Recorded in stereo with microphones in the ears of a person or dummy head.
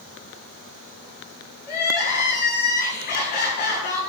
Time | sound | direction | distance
1.6 | crying | 45° left (ahead or behind) | 8.5 m